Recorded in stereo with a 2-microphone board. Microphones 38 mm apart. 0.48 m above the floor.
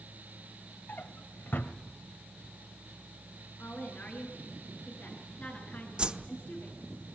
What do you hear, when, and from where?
0.9 s a drawer: 60° left (ahead or behind), 1.6 m
3.6 s a woman speaking: 45° left (ahead or behind), 7.5 m
6.0 s a whoosh: 25° right (ahead or behind), 1.0 m